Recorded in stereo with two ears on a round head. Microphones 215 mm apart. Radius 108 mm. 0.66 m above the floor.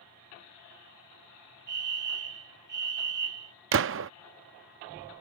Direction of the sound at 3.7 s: 55° right (ahead or behind).